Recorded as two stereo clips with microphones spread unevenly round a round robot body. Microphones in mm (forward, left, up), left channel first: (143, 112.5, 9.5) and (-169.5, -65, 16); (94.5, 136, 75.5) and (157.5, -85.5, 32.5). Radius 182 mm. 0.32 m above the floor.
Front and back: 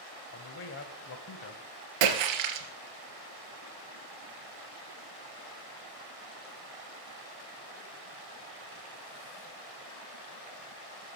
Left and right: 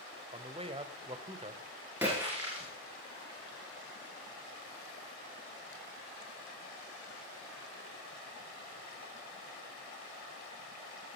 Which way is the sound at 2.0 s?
160° right.